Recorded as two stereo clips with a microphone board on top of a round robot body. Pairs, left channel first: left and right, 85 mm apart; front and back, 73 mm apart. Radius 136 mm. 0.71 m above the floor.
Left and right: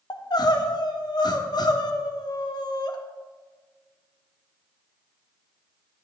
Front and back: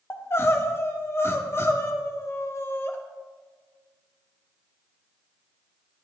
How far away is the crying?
About 1.6 m.